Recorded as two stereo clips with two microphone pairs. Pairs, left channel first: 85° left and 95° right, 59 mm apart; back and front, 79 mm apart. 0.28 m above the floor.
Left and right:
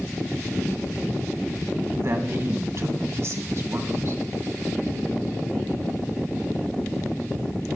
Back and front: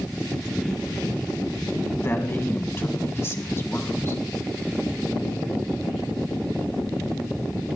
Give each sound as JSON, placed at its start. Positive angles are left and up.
{"t": 2.0, "sound": "a man speaking", "azimuth_deg": -125, "distance_m": 2.0}